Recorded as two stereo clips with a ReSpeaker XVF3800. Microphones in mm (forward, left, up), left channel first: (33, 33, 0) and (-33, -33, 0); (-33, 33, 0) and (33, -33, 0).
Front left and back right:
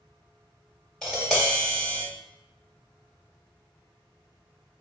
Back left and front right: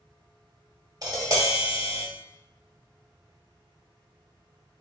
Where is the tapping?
35° right, 1.5 m.